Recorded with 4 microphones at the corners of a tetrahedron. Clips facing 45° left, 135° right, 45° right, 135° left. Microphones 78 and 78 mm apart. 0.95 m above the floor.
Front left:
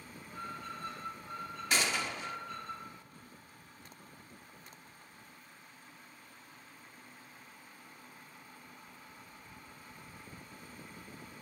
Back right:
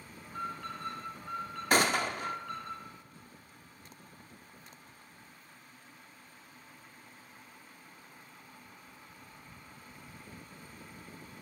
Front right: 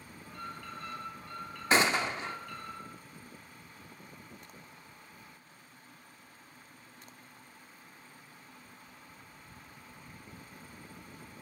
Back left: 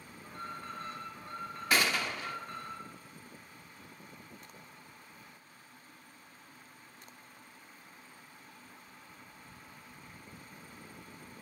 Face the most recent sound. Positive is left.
turn(degrees=-105)